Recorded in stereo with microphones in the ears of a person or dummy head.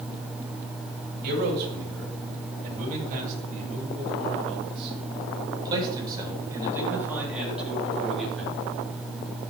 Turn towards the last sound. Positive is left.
turn(degrees=5)  # may be behind; listen again after turning